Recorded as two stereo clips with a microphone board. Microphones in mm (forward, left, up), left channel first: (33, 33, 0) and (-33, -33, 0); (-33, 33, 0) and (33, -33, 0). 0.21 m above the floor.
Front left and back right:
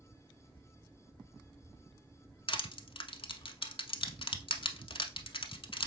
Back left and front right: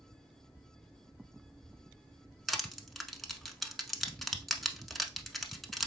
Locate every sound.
2.5 s crushing: 45° left, 0.7 m